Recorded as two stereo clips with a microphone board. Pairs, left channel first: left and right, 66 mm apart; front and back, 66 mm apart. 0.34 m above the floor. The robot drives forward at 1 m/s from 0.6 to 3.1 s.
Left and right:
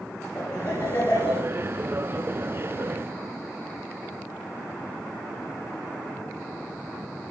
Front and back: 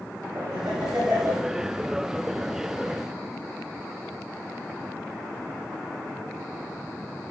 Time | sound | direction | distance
0.3 | laughter | 115° left | 8.5 m